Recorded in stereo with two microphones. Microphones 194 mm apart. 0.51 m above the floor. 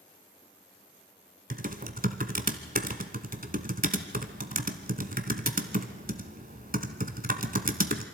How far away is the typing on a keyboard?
About 1.1 m.